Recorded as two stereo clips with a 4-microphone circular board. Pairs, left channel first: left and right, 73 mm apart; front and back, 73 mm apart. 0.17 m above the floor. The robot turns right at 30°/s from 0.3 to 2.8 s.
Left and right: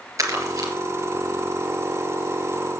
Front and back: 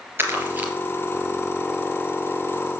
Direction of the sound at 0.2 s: 125° right.